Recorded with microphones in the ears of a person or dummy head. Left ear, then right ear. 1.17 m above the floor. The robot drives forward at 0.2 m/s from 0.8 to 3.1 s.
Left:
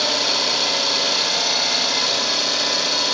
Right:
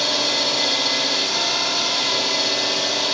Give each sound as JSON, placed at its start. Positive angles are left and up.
{"t": 0.0, "sound": "an engine running", "side_deg": 60, "distance_m": 1.0}